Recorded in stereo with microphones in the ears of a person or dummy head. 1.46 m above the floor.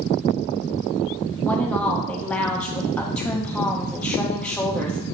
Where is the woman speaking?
10° left (ahead or behind), 0.7 m.